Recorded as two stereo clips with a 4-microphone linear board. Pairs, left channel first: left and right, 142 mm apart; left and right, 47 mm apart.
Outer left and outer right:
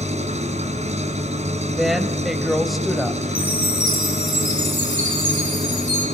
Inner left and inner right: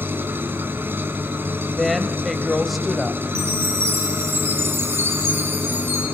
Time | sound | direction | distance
0.0 | an engine running | 55° right (ahead or behind) | 4 m
1.8 | a woman speaking | centre (ahead or behind) | 1.4 m
3.4 | a chime | 80° right | 8.5 m